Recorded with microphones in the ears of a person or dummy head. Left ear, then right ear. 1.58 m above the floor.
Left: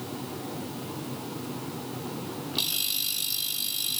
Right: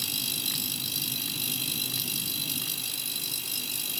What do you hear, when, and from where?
Only background noise.